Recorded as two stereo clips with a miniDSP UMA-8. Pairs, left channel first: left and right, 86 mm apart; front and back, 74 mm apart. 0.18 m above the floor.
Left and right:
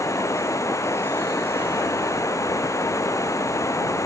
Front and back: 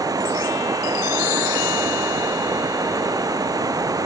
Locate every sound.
0.0 s running water: 145° left